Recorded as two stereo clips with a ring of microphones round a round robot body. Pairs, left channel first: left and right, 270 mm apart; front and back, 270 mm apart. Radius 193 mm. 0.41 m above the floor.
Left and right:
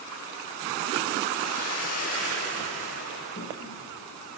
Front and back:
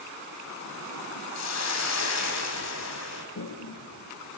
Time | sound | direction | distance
1.4 | a hiss | 20° left | 9.5 m
3.4 | a toilet flushing | 25° left | 4.5 m